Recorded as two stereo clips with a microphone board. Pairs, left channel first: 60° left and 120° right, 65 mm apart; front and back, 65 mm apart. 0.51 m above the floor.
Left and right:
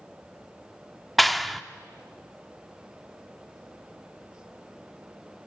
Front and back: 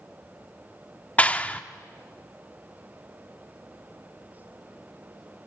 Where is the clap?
25° right, 0.6 m.